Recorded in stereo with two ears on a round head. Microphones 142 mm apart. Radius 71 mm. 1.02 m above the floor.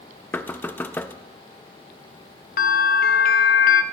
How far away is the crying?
No crying in this recording.